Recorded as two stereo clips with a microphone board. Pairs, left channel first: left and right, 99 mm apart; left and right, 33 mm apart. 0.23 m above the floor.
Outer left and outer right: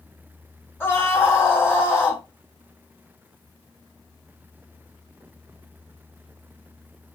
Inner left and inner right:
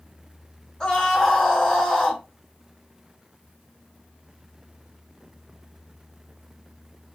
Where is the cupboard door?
No cupboard door in this recording.